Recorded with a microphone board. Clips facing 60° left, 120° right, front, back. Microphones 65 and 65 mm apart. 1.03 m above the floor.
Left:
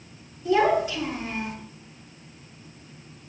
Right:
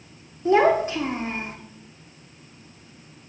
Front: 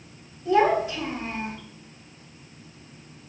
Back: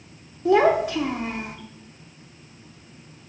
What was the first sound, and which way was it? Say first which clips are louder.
A child speaking: right 3 dB, back 3 dB; 170° right.